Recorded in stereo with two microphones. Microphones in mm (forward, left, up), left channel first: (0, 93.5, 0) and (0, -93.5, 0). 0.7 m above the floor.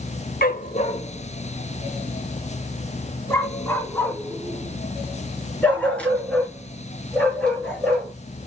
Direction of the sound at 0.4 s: 50° left (ahead or behind).